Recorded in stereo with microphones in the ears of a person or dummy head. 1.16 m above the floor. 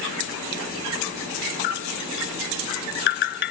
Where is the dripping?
60° left (ahead or behind).